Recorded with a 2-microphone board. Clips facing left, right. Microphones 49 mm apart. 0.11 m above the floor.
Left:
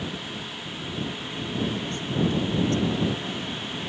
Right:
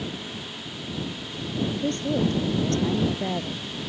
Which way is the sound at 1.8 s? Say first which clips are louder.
Right 2 dB; 55° right (ahead or behind).